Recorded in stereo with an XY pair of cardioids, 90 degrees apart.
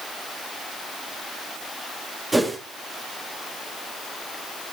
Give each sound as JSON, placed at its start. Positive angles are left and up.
{"t": 2.3, "sound": "a whoosh", "azimuth_deg": -15, "distance_m": 2.5}